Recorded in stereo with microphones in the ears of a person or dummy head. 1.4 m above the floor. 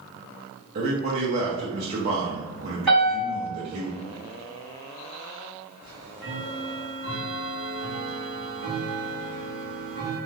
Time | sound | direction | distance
0.8 | a man speaking | 35° right (ahead or behind) | 0.7 m
2.9 | a piano | centre (ahead or behind) | 1.3 m
5.8 | ticking | 20° right (ahead or behind) | 1.5 m